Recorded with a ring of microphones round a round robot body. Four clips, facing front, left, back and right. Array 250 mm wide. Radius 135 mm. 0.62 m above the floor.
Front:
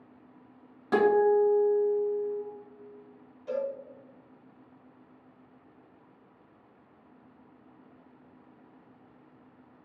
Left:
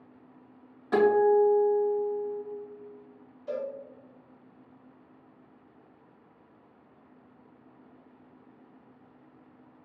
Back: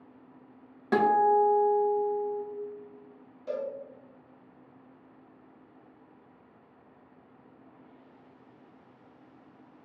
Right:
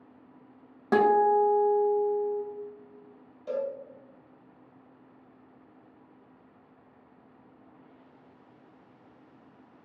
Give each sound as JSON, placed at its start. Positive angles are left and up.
{"t": 0.9, "sound": "a guitar", "azimuth_deg": -110, "distance_m": 1.3}
{"t": 3.5, "sound": "a cowbell", "azimuth_deg": -125, "distance_m": 1.9}